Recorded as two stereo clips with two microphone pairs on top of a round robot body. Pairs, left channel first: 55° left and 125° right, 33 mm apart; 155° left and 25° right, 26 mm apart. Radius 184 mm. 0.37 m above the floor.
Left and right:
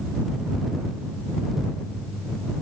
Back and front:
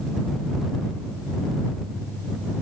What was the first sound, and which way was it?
Only background noise.